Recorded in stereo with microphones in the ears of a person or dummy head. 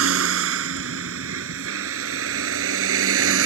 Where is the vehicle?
80° right; by 3.5 s 75° right (ahead or behind).